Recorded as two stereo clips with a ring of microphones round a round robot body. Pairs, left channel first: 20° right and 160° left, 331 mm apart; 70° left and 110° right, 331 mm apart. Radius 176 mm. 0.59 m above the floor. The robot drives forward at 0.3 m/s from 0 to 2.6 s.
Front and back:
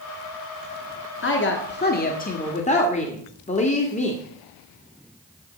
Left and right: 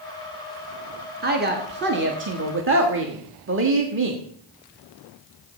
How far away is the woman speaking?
About 1.6 m.